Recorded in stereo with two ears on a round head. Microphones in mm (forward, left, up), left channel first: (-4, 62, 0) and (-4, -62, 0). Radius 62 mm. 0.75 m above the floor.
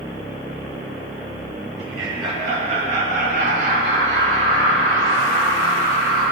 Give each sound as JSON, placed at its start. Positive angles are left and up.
{"t": 1.8, "sound": "laughter", "side_deg": -25, "distance_m": 1.7}